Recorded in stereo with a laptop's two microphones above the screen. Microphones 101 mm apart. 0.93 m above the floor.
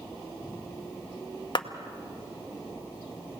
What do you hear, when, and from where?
1.6 s a clap: 50° left (ahead or behind), 0.8 m